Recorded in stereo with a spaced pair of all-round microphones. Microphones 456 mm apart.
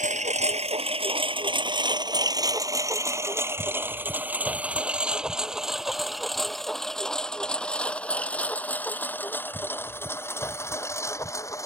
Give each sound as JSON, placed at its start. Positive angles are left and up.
{"t": 0.0, "sound": "a lawn mower", "side_deg": -15}